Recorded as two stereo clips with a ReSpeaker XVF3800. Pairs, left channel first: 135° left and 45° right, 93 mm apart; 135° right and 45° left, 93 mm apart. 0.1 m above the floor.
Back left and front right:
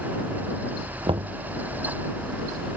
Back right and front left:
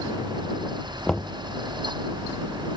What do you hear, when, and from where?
1.1 s knocking: 50° right